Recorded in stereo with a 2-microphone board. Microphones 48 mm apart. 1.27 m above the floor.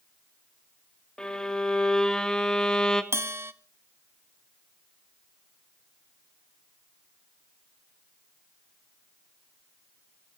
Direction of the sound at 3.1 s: 65° right (ahead or behind).